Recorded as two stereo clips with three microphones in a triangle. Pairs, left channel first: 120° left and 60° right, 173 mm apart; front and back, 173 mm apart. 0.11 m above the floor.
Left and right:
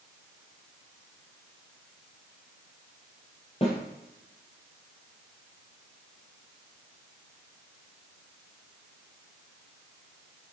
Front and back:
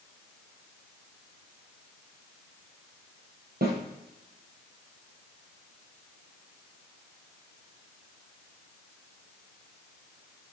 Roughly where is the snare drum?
Behind.